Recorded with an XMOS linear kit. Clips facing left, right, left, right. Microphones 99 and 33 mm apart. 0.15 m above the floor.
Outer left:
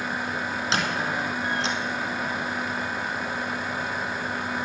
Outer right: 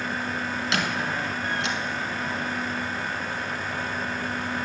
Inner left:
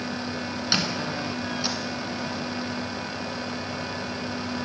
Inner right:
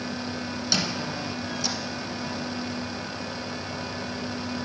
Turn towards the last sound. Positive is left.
turn(degrees=30)  # may be behind; listen again after turning